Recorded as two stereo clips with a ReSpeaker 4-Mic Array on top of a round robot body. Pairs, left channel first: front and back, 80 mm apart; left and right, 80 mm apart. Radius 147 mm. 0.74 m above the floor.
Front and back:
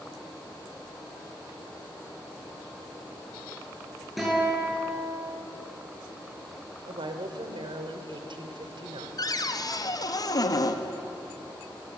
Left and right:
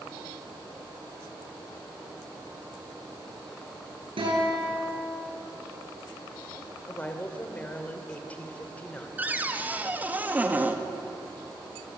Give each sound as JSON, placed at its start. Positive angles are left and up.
{"t": 4.2, "sound": "a guitar", "azimuth_deg": -90, "distance_m": 9.0}
{"t": 6.9, "sound": "a woman speaking", "azimuth_deg": 160, "distance_m": 2.5}
{"t": 9.2, "sound": "a cupboard door", "azimuth_deg": -25, "distance_m": 1.9}